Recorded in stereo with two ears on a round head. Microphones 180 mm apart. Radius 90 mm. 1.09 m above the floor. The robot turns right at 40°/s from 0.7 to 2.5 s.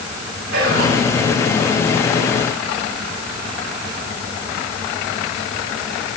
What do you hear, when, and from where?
0.5 s whispering: 50° right (ahead or behind), 8 m; by 1.0 s 40° right (ahead or behind), 8 m